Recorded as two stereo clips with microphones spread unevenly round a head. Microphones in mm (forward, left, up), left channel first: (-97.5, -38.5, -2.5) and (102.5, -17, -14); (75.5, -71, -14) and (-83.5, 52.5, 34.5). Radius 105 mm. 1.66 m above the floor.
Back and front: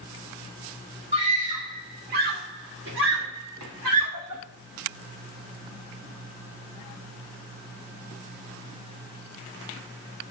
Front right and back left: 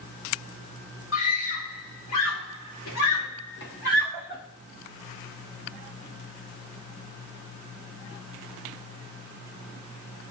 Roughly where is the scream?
Ahead right.